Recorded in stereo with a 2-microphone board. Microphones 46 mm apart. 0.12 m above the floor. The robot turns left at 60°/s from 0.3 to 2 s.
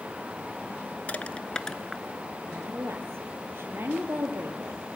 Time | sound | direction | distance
1.1 | crushing | 35° left (ahead or behind) | 1.0 m
2.5 | a woman speaking | 60° right (ahead or behind) | 3 m